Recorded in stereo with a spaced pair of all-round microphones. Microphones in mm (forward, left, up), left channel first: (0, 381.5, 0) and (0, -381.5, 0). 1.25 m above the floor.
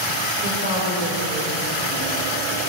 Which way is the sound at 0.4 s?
85° right.